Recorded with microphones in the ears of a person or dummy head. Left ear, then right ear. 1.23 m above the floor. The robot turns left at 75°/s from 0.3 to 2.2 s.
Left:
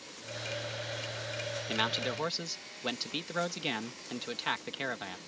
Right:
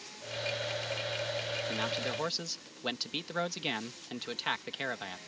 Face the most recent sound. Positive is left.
turn(degrees=-5)